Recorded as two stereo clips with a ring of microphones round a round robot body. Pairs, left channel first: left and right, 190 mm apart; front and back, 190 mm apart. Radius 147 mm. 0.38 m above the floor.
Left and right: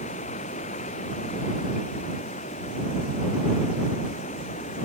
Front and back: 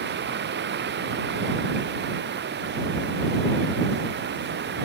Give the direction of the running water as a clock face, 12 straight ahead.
7 o'clock.